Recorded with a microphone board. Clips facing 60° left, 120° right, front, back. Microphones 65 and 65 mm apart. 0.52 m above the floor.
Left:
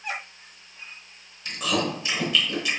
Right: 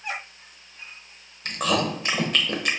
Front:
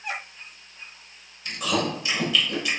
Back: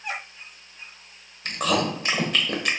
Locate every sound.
1.4 s chewing: 150° right, 0.9 m